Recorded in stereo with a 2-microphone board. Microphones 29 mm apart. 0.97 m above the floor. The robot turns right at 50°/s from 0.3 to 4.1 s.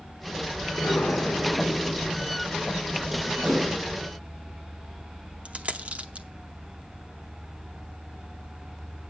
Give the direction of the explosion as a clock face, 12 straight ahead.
9 o'clock.